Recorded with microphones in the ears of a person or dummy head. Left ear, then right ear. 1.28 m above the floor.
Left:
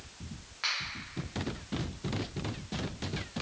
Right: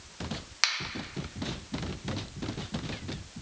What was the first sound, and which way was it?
A finger snap, 80° right.